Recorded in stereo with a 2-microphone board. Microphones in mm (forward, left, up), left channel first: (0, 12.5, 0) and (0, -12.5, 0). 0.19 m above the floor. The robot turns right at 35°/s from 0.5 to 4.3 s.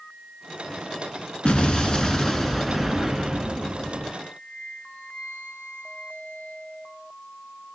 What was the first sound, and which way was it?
An explosion, 130° left.